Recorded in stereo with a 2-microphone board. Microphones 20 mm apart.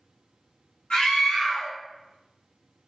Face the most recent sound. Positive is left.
turn(degrees=80)